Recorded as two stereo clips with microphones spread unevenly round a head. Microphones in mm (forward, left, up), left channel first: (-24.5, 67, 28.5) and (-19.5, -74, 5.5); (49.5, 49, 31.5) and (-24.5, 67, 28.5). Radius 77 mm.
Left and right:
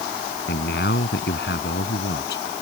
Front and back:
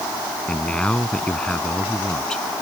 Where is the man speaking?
65° left.